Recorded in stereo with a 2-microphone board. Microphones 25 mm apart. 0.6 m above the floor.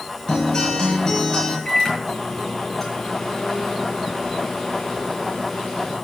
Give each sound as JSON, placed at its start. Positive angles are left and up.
{"t": 0.3, "sound": "a guitar", "side_deg": 35, "distance_m": 6.0}
{"t": 1.6, "sound": "a microwave", "side_deg": 15, "distance_m": 7.5}